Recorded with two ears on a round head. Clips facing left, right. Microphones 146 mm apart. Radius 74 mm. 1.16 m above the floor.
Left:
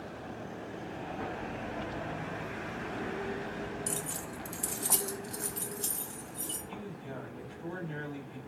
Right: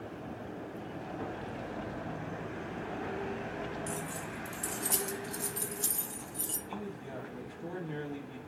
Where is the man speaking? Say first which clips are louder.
Right 3 dB; 20° right (ahead or behind), 2 m.